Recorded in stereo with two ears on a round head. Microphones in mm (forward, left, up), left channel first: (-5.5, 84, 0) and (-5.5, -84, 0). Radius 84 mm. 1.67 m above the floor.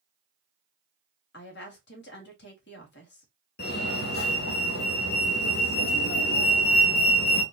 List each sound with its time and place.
1.3 s a woman speaking: 65° left (ahead or behind), 1.5 m
3.6 s a fire alarm: 55° left (ahead or behind), 0.9 m